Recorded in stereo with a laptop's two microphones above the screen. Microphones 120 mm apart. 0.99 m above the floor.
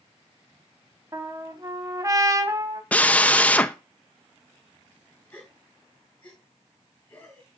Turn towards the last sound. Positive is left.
turn(degrees=15)  # may be behind; listen again after turning